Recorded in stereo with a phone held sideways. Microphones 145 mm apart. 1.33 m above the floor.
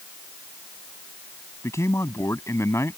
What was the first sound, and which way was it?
A man speaking, 20° left (ahead or behind).